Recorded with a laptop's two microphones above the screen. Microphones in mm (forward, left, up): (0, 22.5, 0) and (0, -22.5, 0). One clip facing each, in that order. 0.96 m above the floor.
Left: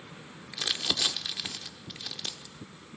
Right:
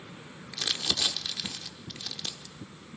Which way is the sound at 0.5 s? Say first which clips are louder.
Even; 10° left (ahead or behind).